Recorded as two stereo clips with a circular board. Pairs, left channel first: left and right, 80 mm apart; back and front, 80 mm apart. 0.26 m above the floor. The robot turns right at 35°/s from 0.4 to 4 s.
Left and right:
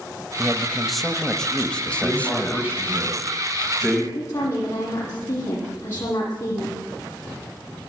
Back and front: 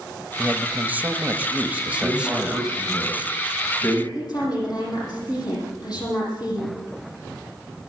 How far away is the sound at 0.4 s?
About 0.9 m.